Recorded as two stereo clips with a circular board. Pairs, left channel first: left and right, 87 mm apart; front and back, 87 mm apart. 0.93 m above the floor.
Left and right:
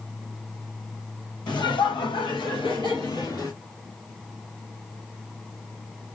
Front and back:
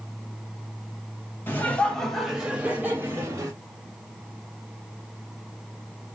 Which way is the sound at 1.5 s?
65° left.